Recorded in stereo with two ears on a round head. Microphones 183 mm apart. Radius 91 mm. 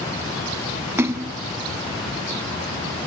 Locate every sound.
1.0 s a splash: 10° right (ahead or behind), 0.7 m